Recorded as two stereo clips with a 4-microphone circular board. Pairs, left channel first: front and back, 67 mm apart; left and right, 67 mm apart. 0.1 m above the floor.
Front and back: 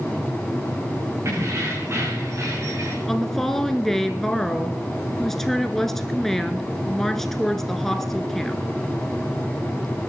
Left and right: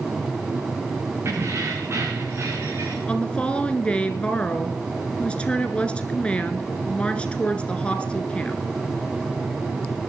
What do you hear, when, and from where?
1.2 s keys jangling: 135° right, 5.5 m
3.1 s a woman speaking: 75° left, 1.1 m